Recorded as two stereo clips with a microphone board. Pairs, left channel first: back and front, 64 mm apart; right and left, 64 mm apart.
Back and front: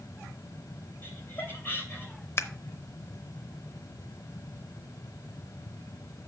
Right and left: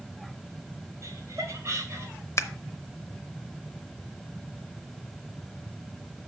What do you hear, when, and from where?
1.0 s laughter: 125° left, 3 m
2.4 s scissors: 135° right, 0.7 m